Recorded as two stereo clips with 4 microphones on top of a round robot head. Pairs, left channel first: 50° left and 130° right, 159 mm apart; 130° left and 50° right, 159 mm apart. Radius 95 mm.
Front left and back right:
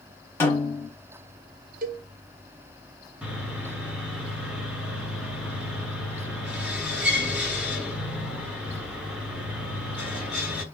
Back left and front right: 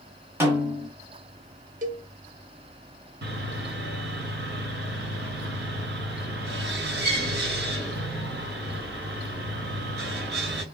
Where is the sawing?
45° right, 2.5 m.